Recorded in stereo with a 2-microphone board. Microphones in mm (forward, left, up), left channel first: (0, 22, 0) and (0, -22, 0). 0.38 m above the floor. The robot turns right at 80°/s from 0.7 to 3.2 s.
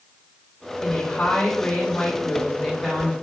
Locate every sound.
0.8 s a woman speaking: straight ahead, 1.0 m; by 3.1 s 175° right, 1.0 m